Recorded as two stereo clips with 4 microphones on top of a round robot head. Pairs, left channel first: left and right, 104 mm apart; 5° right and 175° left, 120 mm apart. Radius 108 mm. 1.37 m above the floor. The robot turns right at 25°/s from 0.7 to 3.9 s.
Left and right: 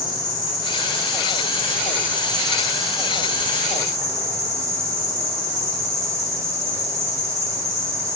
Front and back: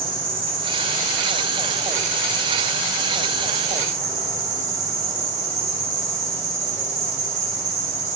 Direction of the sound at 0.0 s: 130° left.